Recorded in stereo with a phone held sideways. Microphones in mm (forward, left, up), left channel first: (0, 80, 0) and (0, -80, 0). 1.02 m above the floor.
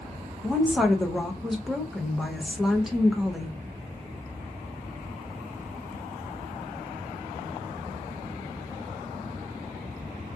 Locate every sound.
0.4 s a woman speaking: centre (ahead or behind), 0.6 m